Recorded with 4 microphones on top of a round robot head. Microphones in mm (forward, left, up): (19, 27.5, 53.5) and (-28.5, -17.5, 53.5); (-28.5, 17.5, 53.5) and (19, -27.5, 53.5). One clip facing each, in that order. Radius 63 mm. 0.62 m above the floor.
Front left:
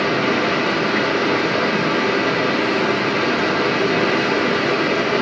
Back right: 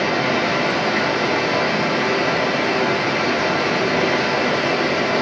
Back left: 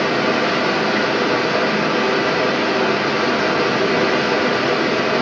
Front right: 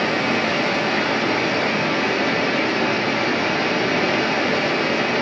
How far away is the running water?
About 7.5 m.